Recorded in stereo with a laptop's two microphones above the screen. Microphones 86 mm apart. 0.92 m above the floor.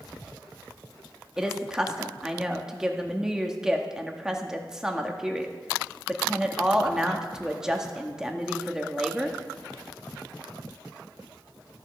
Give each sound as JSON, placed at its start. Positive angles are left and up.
{"t": 1.4, "sound": "a woman speaking", "side_deg": -5, "distance_m": 1.7}